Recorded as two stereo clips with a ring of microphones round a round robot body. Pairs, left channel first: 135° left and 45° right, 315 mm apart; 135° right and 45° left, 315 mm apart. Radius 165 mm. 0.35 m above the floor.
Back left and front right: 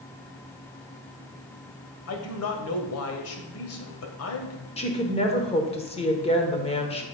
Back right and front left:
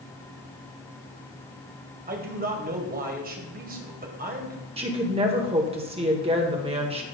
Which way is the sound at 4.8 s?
90° left.